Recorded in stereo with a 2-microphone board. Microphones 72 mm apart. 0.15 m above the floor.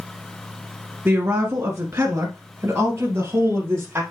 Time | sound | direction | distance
1.1 | a woman speaking | 35° right (ahead or behind) | 1.2 m